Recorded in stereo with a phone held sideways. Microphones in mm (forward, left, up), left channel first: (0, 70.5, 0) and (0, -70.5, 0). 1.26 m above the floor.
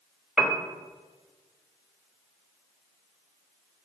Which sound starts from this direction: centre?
A piano, at 0.4 s.